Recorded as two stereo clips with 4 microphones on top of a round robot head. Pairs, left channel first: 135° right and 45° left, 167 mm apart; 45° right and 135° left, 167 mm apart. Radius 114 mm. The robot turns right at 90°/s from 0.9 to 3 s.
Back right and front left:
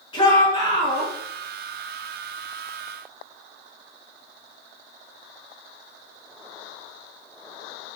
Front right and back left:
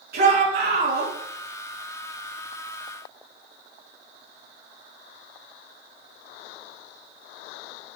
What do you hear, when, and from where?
0.1 s a shout: 165° left, 5.5 m; by 1.1 s straight behind, 5.5 m